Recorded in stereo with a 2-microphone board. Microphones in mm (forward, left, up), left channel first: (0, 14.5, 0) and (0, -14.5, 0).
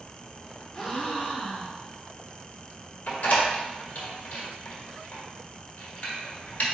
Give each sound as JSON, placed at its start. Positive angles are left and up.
{"t": 0.7, "sound": "a gasp", "side_deg": 25, "distance_m": 1.4}
{"t": 3.1, "sound": "a door slam", "side_deg": 65, "distance_m": 1.3}